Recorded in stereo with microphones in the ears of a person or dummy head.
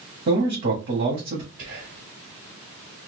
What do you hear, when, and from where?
0.3 s a man speaking: 50° right (ahead or behind), 1.0 m
1.6 s whispering: 55° right (ahead or behind), 1.6 m